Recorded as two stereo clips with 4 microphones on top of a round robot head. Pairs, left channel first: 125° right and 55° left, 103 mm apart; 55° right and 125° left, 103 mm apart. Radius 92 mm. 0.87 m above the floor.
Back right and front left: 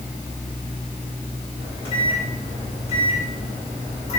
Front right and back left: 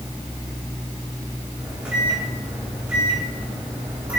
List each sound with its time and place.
1.6 s a microwave: 155° right, 3 m